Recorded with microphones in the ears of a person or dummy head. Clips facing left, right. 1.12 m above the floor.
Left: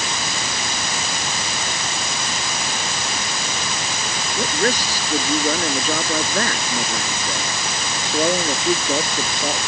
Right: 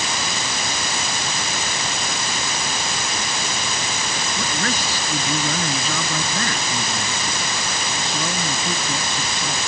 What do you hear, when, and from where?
4.4 s a man speaking: 35° left (ahead or behind); by 9.6 s 50° left (ahead or behind)